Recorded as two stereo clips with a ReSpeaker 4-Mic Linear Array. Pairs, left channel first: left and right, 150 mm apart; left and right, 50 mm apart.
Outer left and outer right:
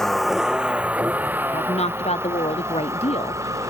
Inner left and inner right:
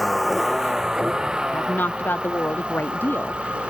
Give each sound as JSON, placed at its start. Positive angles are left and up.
{"t": 0.0, "sound": "a vehicle", "side_deg": 0}
{"t": 1.5, "sound": "a woman speaking", "side_deg": 45}